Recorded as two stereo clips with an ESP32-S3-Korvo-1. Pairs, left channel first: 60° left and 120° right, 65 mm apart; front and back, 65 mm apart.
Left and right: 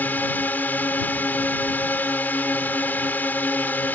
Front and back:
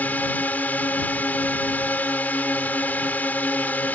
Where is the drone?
35° left.